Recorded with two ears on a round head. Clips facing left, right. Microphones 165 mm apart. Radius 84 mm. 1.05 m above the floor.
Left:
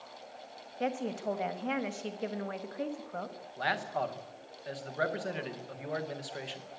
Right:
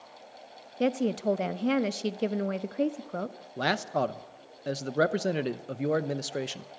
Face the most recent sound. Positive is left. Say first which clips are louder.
# right 6 dB
turn(degrees=-55)  # may be behind; listen again after turning